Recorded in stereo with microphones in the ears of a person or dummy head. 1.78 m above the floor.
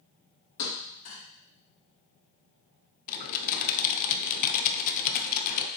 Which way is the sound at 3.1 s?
45° left (ahead or behind).